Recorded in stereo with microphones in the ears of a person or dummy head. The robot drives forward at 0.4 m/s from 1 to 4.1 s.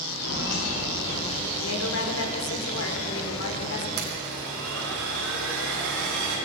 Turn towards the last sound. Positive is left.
turn(degrees=-85)